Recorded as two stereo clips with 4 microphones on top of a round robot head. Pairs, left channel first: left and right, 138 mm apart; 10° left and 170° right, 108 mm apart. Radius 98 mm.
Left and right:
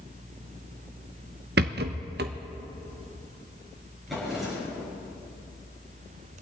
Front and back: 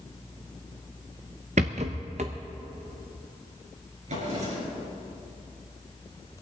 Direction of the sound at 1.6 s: 120° right.